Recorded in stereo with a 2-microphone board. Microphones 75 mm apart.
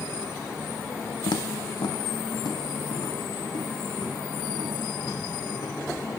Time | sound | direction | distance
1.3 | footsteps | 80° left | 0.5 m